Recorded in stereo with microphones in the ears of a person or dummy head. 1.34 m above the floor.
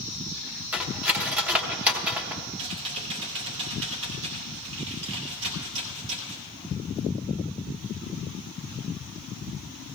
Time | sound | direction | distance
0.7 | cutlery clinking | 10° right (ahead or behind) | 0.8 m
2.6 | typing on a keyboard | 70° right (ahead or behind) | 2.5 m